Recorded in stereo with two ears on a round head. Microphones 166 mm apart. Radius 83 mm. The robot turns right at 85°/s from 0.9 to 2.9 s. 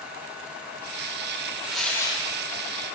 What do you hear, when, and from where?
1.6 s tearing paper: 10° right, 1.6 m; by 2.3 s 45° left, 1.6 m